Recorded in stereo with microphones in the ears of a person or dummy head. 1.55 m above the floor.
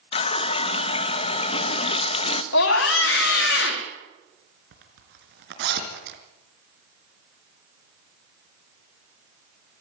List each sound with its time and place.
0.1 s a running tap: 40° left (ahead or behind), 1.2 m
2.5 s a scream: 75° left (ahead or behind), 3 m
4.7 s a zipper: 65° right (ahead or behind), 3.5 m